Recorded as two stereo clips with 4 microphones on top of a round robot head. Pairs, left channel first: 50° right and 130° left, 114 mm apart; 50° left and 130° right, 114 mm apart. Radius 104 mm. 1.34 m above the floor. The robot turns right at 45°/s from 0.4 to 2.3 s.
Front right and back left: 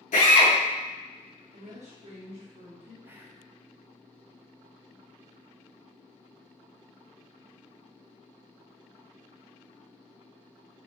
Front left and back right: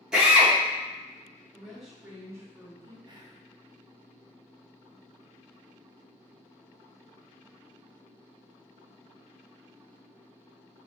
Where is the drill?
45° right, 0.8 m; by 0.5 s 40° right, 0.8 m.